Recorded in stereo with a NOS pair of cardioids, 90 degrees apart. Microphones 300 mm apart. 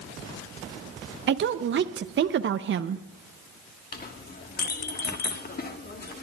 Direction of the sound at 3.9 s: 35° left.